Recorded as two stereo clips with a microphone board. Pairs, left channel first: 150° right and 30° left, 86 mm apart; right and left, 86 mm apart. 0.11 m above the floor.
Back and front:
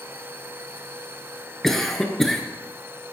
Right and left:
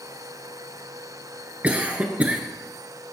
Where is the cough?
130° left, 1.1 m.